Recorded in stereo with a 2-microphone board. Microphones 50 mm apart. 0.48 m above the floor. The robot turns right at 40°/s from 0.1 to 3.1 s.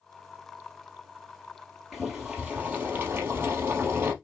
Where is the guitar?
No guitar in this recording.